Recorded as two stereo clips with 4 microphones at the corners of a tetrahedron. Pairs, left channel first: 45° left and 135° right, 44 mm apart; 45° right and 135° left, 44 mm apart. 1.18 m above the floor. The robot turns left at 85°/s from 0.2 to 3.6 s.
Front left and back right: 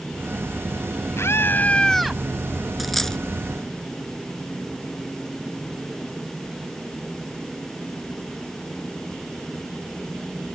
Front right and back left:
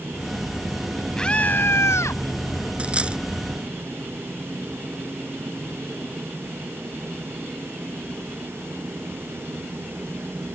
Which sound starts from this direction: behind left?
A dropped coin, at 2.8 s.